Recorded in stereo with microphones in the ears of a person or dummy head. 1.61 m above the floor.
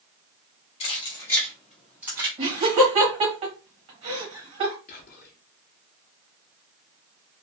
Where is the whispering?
45° left (ahead or behind), 0.8 m.